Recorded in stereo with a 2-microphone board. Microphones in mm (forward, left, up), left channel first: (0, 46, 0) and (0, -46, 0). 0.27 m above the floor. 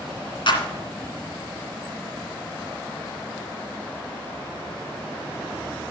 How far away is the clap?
About 2 m.